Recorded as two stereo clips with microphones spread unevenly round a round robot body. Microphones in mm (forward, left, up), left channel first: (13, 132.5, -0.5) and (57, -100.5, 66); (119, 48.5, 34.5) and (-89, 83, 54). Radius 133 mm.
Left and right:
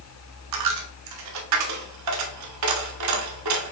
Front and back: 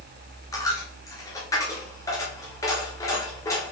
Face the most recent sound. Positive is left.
turn(degrees=-90)